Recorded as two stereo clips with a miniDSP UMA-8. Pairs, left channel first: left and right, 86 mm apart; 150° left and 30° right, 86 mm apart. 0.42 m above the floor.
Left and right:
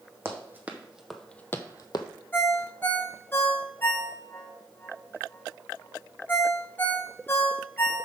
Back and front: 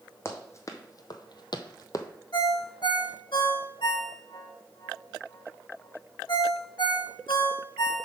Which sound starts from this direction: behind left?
A ringtone, at 2.3 s.